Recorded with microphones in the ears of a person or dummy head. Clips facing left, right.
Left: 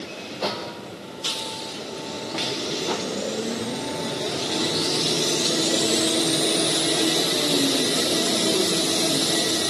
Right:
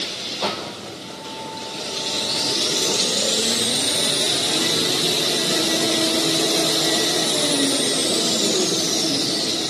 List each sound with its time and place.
0.4 s a snare drum: 10° left (ahead or behind), 5 m